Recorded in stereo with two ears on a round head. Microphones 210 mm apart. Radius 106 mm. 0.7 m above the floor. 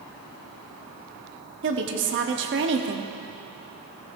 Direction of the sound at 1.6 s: 55° right (ahead or behind).